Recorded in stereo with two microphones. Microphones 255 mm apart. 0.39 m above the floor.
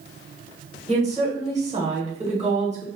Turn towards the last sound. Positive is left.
turn(degrees=-25)  # may be behind; listen again after turning